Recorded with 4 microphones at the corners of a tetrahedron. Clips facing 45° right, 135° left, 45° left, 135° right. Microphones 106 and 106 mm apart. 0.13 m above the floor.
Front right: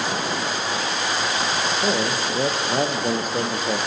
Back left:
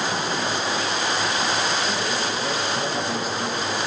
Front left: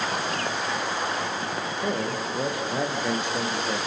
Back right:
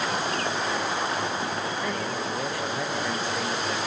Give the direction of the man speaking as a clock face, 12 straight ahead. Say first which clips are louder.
Front right 2 dB, front left 2 dB; 1 o'clock.